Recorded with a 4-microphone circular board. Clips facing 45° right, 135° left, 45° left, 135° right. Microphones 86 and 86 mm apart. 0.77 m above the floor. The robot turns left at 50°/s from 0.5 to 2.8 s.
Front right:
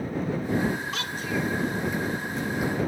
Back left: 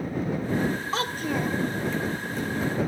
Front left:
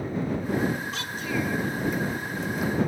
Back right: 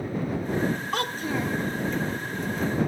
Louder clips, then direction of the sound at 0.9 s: Back left 3 dB, back right 2 dB; 170° right.